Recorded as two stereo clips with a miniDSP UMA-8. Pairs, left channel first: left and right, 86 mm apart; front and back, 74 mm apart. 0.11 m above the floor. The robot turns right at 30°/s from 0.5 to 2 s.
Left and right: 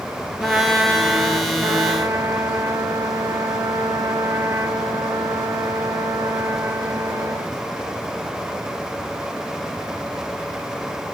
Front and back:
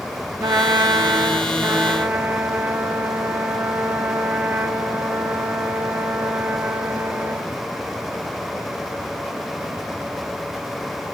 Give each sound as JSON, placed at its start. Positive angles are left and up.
{"t": 0.4, "sound": "a trumpet", "azimuth_deg": -165, "distance_m": 0.5}